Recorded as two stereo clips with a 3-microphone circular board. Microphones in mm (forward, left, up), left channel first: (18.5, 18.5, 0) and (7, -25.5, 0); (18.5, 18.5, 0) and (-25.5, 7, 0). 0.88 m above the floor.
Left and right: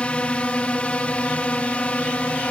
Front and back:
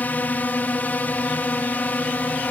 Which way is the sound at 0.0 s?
30° left.